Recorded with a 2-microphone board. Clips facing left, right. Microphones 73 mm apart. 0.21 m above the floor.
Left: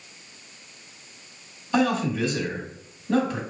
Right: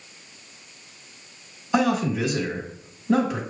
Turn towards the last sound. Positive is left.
turn(degrees=-10)  # may be behind; listen again after turning